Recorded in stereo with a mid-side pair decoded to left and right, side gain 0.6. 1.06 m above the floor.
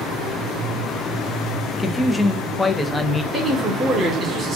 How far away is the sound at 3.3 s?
About 3.5 m.